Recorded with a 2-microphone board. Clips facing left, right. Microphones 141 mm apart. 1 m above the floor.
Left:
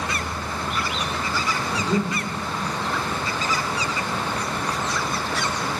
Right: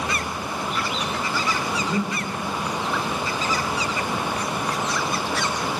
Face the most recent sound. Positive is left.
turn(degrees=25)  # may be behind; listen again after turning